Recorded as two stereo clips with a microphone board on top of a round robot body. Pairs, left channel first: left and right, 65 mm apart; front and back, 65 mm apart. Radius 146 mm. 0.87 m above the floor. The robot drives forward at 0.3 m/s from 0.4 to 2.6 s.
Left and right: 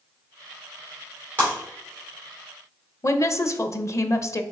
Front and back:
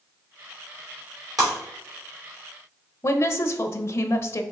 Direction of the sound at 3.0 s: 45° left.